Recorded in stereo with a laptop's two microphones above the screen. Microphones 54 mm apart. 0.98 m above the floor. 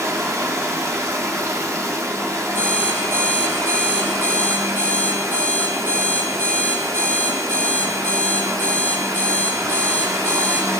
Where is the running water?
75° right (ahead or behind), 1.7 m.